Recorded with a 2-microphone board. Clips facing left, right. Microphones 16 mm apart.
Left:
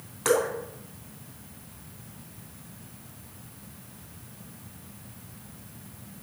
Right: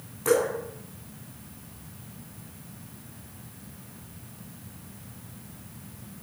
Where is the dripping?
45° left (ahead or behind), 2 m.